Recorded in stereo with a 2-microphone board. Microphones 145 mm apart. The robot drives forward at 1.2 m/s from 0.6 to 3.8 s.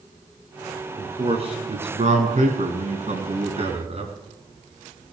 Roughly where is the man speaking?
Right.